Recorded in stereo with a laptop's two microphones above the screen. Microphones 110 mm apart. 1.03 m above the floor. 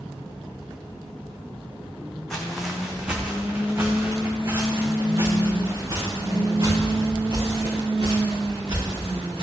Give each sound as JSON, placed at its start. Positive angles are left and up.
{"t": 2.3, "sound": "footsteps", "side_deg": 5, "distance_m": 3.5}